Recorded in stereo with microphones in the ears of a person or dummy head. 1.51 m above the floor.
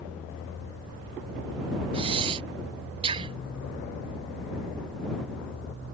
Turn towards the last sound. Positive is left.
turn(degrees=-30)  # may be behind; listen again after turning